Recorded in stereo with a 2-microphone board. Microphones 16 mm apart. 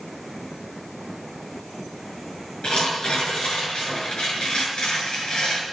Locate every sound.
2.6 s tearing paper: 85° left, 6.5 m